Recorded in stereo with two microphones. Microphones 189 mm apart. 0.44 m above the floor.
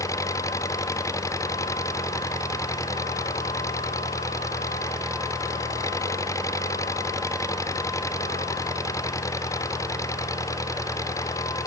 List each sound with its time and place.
0.0 s an engine running: 15° left (ahead or behind)